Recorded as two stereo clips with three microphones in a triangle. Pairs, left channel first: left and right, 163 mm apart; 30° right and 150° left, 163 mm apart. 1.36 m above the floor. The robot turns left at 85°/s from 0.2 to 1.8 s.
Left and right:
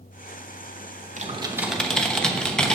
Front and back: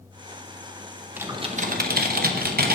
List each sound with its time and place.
1.2 s typing on a keyboard: 130° right, 1.0 m; by 2.8 s 175° left, 1.0 m